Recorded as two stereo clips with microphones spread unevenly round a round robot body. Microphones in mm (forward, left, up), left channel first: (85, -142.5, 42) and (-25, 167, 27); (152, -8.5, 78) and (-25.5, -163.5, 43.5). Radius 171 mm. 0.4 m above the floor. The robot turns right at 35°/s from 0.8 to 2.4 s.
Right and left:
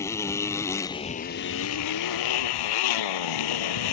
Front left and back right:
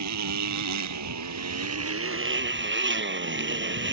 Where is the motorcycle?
155° right; by 3.9 s 95° right.